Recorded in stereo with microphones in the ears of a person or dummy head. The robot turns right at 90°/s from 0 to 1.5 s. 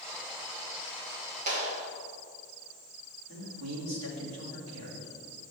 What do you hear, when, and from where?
1.5 s a clap: 40° right (ahead or behind), 2 m
3.3 s a man speaking: 65° right (ahead or behind), 3.5 m